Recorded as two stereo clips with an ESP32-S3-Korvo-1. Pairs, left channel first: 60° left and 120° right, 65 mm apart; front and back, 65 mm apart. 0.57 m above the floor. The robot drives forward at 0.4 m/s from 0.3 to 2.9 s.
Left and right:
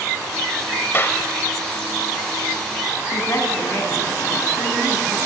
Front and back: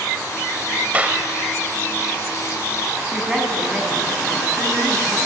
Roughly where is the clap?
Behind left.